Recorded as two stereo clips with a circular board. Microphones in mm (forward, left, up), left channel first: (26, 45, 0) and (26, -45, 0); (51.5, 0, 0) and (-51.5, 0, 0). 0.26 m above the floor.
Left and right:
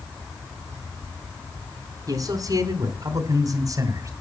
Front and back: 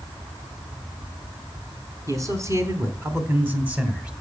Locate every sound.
2.1 s a man speaking: 130° right, 3 m; by 4.1 s 105° right, 2 m